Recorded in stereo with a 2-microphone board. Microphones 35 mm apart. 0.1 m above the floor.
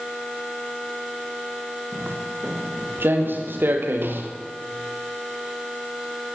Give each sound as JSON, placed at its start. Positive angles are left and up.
{"t": 1.9, "sound": "footsteps", "side_deg": -85, "distance_m": 6.5}